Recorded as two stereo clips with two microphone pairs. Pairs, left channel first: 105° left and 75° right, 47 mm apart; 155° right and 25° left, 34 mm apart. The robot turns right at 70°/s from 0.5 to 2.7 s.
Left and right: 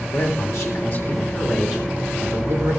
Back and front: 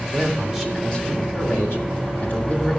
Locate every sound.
0.1 s a man speaking: 110° left, 3.5 m; by 2.8 s 95° right, 3.5 m